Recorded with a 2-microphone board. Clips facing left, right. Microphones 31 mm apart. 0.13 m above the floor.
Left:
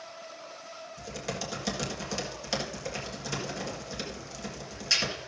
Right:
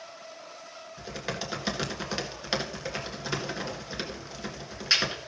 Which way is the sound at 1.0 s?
35° right (ahead or behind).